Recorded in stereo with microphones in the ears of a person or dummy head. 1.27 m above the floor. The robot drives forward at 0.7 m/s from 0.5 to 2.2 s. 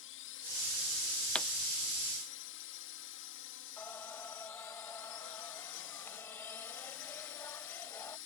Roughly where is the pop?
Centre.